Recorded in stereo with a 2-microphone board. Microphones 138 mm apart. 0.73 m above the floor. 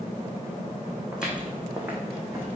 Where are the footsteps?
5° right (ahead or behind), 2.5 m; by 2.5 s 20° right (ahead or behind), 2.5 m.